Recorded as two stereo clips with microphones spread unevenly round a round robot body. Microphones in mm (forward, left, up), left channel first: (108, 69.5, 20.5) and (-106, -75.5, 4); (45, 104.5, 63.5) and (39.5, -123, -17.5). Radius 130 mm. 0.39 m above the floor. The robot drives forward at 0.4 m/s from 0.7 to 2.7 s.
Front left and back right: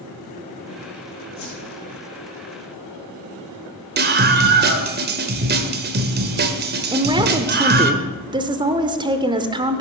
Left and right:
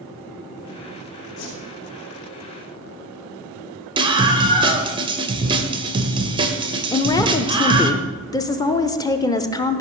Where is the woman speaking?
170° right, 0.8 m.